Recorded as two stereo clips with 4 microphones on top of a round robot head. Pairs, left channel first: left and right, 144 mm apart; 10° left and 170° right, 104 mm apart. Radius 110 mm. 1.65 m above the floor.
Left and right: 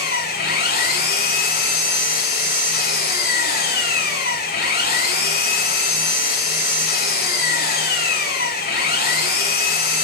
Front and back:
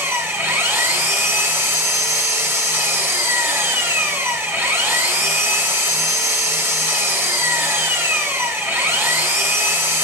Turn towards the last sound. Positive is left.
turn(degrees=120)